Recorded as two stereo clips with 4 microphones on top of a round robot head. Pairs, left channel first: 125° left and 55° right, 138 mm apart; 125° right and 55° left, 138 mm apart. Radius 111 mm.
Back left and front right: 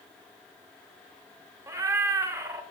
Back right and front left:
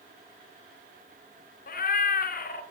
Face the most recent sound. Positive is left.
turn(degrees=-125)